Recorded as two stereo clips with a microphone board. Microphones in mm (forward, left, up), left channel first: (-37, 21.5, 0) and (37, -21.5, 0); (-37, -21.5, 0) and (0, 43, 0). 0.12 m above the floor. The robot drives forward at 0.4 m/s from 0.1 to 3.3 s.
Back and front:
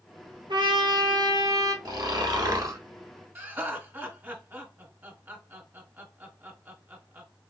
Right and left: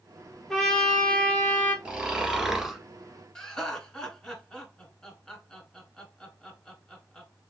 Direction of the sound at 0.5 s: 35° right.